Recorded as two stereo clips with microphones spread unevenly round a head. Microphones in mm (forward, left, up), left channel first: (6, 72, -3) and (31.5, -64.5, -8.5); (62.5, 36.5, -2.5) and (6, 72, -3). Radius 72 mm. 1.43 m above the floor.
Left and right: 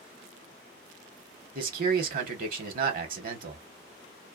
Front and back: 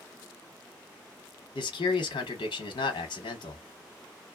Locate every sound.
1.6 s a man speaking: 50° right, 0.9 m